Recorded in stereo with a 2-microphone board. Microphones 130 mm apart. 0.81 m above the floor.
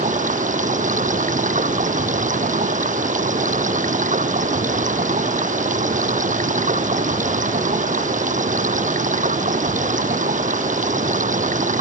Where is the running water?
80° right.